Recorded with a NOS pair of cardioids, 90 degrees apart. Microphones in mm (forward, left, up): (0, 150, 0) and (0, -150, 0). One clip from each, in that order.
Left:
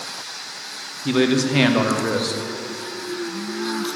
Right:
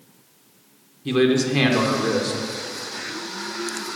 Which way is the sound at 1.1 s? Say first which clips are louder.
Even; 15° left.